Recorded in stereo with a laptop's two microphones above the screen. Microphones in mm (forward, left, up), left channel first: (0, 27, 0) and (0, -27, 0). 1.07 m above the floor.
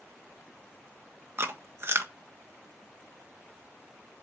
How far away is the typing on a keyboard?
No typing on a keyboard in this recording.